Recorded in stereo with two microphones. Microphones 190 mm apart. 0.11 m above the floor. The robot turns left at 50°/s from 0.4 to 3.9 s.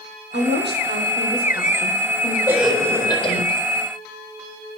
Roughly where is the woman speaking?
Right.